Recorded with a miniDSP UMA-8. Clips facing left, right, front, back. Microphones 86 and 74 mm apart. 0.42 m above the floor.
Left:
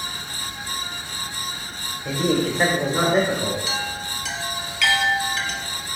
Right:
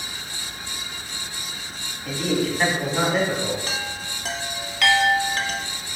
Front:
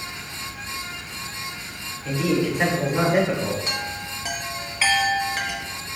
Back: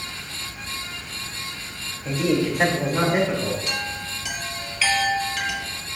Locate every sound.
2.0 s a man speaking: 125° left, 1.2 m; by 3.6 s 60° left, 1.3 m
3.7 s a chime: 50° right, 0.6 m